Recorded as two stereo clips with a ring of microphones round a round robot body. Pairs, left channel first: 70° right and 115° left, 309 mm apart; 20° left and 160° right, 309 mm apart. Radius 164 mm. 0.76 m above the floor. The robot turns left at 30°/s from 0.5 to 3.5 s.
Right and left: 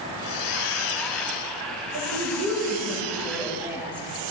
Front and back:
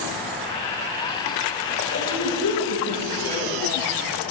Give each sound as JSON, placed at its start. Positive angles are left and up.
{"t": 1.9, "sound": "a woman speaking", "azimuth_deg": 75, "distance_m": 3.5}